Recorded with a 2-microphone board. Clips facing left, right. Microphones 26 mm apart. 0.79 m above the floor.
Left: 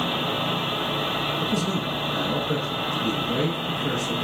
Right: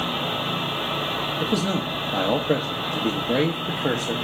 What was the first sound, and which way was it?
A man speaking, 50° right (ahead or behind).